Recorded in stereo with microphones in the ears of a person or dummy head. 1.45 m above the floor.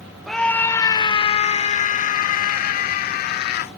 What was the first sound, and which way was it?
A scream, centre (ahead or behind).